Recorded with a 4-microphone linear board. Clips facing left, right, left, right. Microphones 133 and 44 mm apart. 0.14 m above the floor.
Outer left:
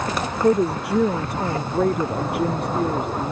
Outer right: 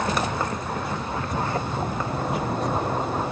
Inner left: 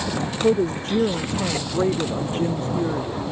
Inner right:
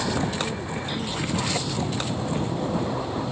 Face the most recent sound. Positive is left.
turn(degrees=60)  # may be behind; listen again after turning